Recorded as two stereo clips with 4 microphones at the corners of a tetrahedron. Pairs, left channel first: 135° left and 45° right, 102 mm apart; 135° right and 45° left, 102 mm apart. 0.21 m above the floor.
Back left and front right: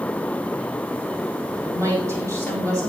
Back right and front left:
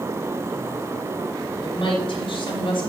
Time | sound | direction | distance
1.6 | a woman speaking | 105° right | 5.5 m